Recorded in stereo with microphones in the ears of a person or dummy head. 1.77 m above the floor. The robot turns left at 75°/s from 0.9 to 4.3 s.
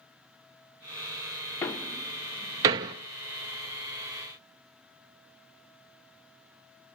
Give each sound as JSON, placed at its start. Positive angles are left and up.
{"t": 1.6, "sound": "a door slam", "side_deg": 10, "distance_m": 0.5}